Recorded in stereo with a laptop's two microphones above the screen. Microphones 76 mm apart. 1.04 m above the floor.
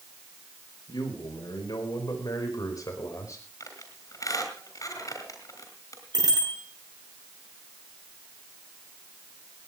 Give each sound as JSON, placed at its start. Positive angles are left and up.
{"t": 0.9, "sound": "a man speaking", "side_deg": 70, "distance_m": 4.5}
{"t": 3.6, "sound": "a squeak", "side_deg": 55, "distance_m": 3.5}
{"t": 6.1, "sound": "a bicycle bell", "side_deg": -75, "distance_m": 10.0}